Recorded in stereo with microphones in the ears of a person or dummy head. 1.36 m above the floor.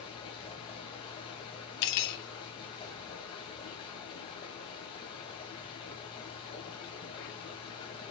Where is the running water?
25° left (ahead or behind), 2 m.